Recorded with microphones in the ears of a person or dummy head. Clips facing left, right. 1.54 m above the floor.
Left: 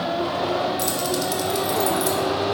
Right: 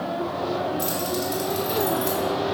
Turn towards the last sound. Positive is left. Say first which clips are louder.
# left 2 dB
turn(degrees=55)  # may be behind; listen again after turning